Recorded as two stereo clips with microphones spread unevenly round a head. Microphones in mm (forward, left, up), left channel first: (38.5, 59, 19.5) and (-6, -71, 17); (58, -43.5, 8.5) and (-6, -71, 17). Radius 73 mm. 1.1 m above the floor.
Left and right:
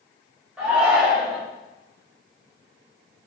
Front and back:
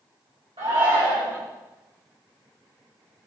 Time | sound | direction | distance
0.6 | a shout | 165° left | 5 m